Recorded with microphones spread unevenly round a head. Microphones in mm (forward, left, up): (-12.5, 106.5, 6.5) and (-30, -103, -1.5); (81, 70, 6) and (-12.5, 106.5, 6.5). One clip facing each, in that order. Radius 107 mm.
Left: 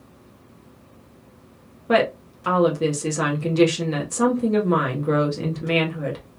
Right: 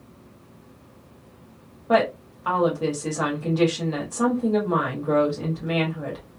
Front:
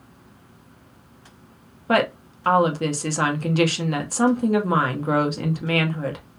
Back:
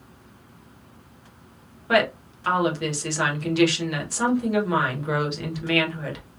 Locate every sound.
1.9 s a woman speaking: 25° left, 1.1 m